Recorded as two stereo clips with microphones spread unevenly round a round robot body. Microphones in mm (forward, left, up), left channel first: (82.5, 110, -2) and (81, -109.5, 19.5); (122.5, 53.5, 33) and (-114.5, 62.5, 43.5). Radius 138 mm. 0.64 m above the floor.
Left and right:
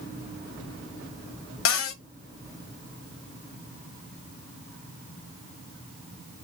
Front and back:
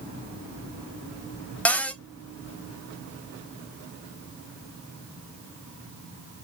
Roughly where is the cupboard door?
Left.